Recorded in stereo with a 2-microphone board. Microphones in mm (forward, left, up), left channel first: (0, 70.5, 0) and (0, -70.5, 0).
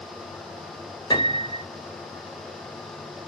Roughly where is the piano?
Left.